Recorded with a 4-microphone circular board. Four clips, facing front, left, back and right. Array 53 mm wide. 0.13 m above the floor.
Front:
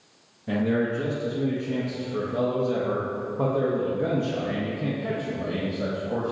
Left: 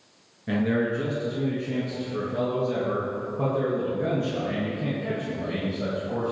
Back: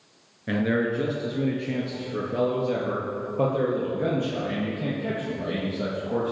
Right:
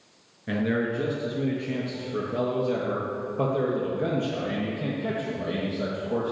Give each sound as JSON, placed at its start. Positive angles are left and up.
{"t": 0.5, "sound": "a man speaking", "azimuth_deg": -175, "distance_m": 1.4}